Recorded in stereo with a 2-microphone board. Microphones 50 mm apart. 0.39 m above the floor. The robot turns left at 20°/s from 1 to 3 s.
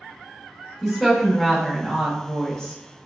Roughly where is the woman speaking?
Centre.